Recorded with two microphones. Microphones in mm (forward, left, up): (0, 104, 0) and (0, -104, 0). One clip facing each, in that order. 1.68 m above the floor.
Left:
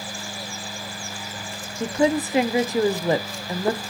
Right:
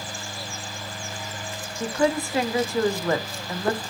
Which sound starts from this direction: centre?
A woman speaking, at 1.8 s.